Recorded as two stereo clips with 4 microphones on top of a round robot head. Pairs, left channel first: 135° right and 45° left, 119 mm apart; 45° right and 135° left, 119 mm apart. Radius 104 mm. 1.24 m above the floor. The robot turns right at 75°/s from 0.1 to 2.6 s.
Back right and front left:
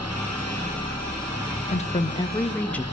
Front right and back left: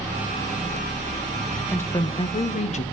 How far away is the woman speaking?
About 1.1 m.